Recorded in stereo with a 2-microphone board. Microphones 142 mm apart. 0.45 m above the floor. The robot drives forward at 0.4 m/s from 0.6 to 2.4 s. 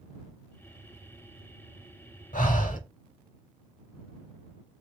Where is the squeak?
No squeak in this recording.